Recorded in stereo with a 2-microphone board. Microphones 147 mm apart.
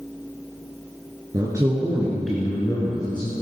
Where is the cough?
I don't hear a cough.